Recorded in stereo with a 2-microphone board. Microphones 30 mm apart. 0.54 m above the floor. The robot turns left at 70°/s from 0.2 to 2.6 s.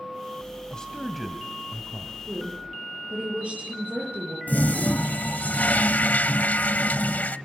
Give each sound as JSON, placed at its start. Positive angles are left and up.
{"t": 0.7, "sound": "a man speaking", "azimuth_deg": 35, "distance_m": 2.5}
{"t": 2.3, "sound": "a woman speaking", "side_deg": -75, "distance_m": 9.5}
{"t": 4.5, "sound": "a toilet flushing", "side_deg": 70, "distance_m": 0.8}